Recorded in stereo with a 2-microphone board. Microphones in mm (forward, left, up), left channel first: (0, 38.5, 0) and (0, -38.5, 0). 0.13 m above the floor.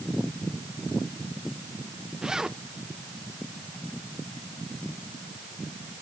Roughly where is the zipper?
Centre.